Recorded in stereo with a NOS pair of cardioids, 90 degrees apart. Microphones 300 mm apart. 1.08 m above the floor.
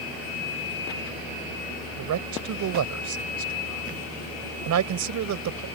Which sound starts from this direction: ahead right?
A man speaking, at 2.0 s.